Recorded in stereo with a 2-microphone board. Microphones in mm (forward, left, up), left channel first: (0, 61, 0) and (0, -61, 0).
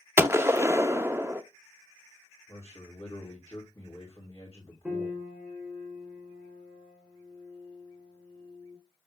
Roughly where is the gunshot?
Right.